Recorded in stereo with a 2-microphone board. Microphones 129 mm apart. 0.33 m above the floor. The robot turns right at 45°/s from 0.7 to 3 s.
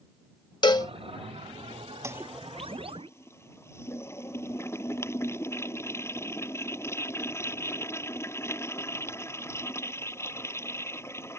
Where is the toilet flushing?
25° right; by 11.4 s 20° left.